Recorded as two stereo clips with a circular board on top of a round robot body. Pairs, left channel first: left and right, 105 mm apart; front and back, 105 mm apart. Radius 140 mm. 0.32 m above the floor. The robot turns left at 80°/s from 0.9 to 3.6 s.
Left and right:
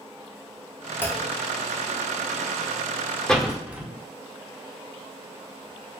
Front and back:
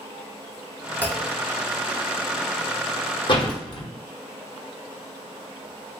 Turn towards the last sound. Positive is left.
turn(degrees=-15)